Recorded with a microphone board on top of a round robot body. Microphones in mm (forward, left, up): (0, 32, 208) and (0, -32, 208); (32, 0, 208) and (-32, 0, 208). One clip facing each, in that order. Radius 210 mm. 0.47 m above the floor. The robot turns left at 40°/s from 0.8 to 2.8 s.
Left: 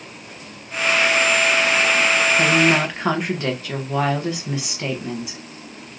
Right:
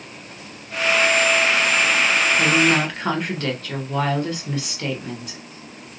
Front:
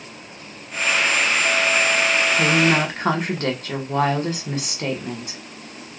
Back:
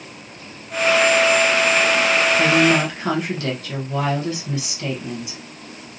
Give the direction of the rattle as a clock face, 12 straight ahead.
No rattle in this recording.